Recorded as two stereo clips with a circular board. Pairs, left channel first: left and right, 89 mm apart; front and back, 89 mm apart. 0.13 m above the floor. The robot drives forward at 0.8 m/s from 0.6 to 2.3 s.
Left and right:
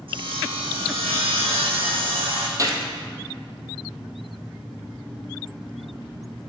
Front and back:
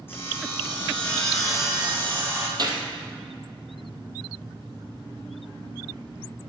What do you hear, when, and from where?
0.1 s sawing: 65° right, 1.7 m; by 2.5 s 115° right, 1.7 m
2.6 s a gunshot: 140° right, 1.1 m